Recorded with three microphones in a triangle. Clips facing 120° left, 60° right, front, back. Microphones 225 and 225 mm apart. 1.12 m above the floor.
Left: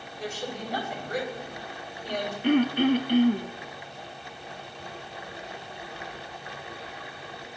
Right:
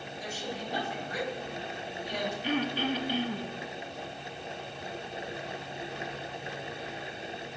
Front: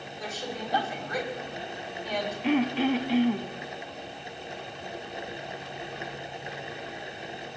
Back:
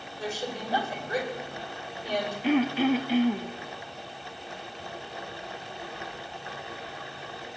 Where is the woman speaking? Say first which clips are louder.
Left 4 dB, back 3 dB; 125° left, 6.5 m.